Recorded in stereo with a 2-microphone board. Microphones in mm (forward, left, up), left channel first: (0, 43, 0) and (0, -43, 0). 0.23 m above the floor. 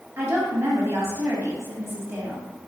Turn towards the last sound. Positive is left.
turn(degrees=-30)  # may be behind; listen again after turning